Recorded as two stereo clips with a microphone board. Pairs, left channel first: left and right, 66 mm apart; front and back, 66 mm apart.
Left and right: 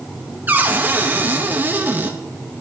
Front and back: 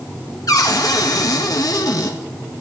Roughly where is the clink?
No clink in this recording.